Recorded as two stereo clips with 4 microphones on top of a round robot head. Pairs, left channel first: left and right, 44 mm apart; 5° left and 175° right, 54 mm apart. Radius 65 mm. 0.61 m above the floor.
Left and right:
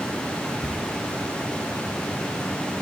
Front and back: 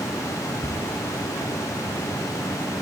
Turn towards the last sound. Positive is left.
turn(degrees=-35)